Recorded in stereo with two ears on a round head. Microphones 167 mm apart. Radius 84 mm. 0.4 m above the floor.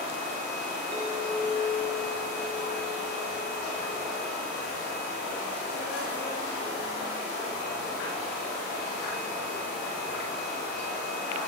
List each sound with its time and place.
0.9 s a clink: 25° right (ahead or behind), 4.5 m